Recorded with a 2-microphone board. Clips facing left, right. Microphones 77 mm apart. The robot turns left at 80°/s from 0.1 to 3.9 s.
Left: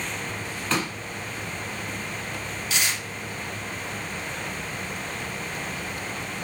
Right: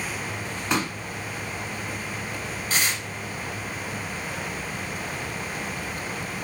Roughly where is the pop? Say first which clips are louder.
Right 1 dB; centre.